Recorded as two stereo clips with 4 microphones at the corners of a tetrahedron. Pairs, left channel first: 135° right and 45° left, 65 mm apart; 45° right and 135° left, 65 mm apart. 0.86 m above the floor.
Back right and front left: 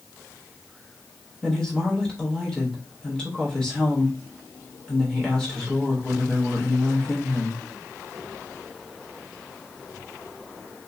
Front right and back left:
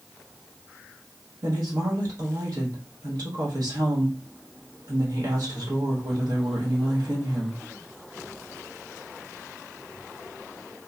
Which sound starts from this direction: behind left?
A woman speaking, at 1.4 s.